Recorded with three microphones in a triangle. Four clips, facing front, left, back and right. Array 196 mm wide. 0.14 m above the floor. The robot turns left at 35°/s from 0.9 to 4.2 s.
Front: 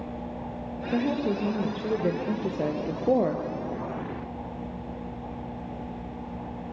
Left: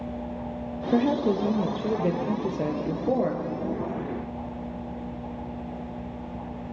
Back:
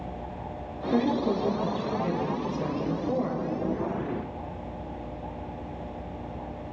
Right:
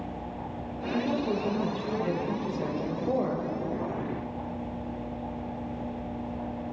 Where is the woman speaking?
90° left, 3 m; by 3.4 s 5° left, 3 m.